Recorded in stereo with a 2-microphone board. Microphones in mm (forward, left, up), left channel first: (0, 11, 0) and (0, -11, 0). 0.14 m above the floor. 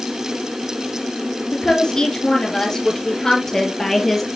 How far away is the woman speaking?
About 3 m.